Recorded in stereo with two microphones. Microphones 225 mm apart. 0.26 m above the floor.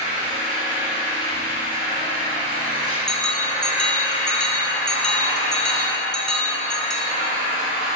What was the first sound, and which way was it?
An engine running, 40° right (ahead or behind).